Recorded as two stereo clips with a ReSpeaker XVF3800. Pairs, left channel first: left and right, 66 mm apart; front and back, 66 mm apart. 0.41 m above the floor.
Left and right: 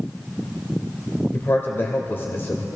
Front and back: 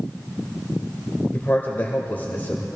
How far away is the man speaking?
About 1.4 m.